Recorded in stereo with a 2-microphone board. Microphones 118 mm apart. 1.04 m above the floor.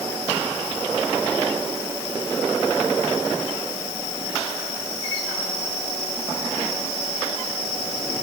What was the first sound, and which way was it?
Only background noise.